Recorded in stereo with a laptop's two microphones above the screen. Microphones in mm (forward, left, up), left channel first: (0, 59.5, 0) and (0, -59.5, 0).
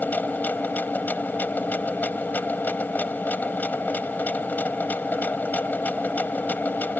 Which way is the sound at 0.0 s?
15° left (ahead or behind).